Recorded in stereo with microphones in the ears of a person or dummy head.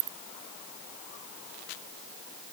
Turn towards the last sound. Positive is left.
No sound to turn to.